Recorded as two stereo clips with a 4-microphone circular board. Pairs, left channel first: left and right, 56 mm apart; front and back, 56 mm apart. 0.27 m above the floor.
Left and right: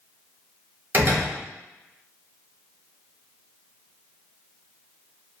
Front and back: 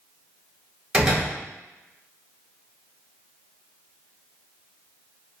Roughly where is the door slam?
Behind right.